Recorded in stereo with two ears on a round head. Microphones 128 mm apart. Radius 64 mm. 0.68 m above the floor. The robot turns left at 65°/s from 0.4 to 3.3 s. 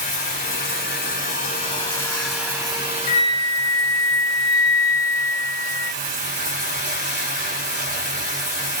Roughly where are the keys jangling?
I don't hear keys jangling.